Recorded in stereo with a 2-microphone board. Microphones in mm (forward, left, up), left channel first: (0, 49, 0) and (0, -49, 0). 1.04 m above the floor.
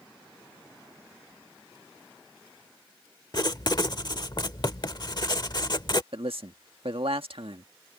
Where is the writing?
45° left (ahead or behind).